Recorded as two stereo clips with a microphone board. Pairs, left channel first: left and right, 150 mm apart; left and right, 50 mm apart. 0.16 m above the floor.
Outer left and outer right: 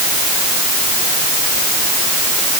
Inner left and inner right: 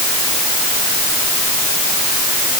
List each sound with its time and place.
Only background noise.